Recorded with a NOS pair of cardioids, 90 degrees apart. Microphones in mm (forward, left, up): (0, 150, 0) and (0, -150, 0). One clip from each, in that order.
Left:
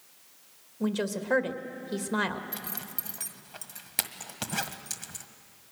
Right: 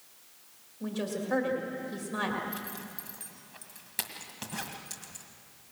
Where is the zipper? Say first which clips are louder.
Even; 45° left, 1.6 m.